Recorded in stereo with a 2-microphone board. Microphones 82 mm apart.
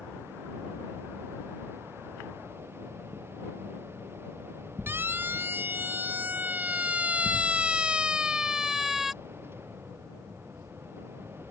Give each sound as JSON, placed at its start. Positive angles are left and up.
{"t": 4.9, "sound": "a siren", "side_deg": -25}